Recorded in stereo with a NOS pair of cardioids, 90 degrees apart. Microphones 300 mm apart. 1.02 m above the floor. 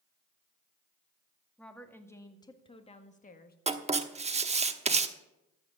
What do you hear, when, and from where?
1.6 s a woman speaking: 5° left, 2 m; by 3.6 s 35° left, 1.6 m
3.7 s writing: 20° right, 1.1 m